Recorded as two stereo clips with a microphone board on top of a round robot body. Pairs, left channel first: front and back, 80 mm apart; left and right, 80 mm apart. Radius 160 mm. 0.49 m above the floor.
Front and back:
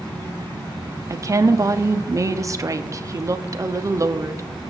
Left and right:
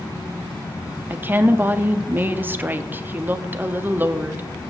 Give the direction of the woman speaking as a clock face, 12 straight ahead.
5 o'clock.